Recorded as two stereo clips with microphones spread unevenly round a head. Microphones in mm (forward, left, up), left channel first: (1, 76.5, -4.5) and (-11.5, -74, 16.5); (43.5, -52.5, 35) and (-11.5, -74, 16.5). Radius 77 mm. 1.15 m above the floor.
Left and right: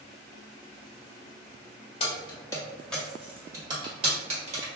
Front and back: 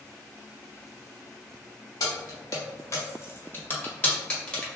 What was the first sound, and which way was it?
Keys jangling, 30° left.